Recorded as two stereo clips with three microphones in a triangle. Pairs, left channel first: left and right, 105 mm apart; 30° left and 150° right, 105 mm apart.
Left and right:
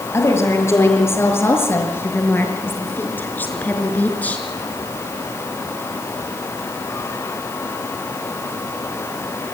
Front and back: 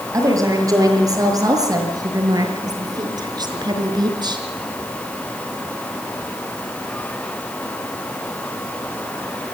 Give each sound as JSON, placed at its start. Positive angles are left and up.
{"t": 0.1, "sound": "a woman speaking", "azimuth_deg": 155, "distance_m": 6.5}